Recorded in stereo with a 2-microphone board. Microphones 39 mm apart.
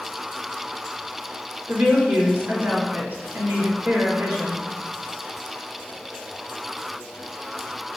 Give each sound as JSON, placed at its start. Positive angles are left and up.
{"t": 1.7, "sound": "a woman speaking", "side_deg": -65, "distance_m": 3.0}